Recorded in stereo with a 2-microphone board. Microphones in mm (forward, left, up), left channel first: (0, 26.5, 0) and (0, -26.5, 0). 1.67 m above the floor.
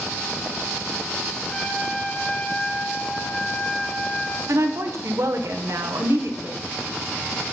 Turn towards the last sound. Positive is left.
turn(degrees=-70)  # may be behind; listen again after turning